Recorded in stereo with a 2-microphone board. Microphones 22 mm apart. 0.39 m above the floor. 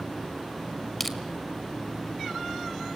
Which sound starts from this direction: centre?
Crushing, at 1.0 s.